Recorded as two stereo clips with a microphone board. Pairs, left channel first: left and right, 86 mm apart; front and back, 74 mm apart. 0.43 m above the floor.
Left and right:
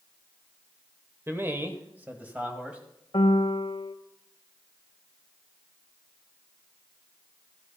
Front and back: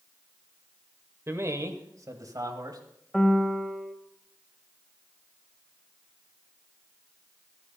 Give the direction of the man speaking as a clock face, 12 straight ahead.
5 o'clock.